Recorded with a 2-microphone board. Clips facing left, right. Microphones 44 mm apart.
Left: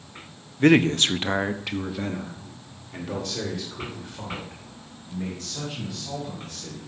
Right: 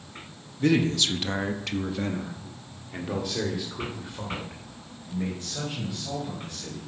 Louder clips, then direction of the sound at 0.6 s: Left 5 dB; 50° left (ahead or behind).